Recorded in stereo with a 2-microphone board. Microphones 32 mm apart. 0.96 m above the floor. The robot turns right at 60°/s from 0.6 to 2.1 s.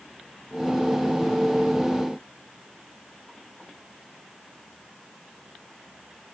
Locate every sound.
Only background noise.